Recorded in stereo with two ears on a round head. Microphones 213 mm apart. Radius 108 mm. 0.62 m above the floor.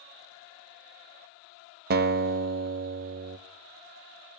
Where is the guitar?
40° right (ahead or behind), 0.5 m.